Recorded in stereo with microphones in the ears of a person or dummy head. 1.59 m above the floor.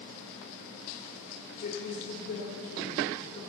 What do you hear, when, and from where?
1.6 s a woman speaking: 55° left (ahead or behind), 2.5 m